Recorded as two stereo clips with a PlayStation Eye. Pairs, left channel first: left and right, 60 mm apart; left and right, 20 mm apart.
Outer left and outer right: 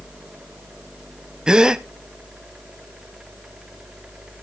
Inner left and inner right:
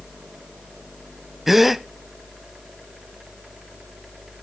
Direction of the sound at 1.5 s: 10° right (ahead or behind).